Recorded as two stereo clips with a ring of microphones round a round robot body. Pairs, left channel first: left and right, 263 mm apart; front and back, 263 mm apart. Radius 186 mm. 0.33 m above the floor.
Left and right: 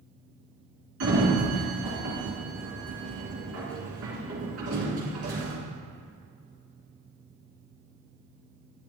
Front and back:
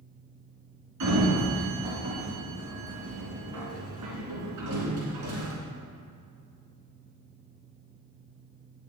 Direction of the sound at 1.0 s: 145° right.